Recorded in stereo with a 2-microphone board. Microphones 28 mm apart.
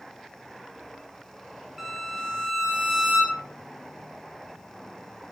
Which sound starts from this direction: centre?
A violin, at 1.8 s.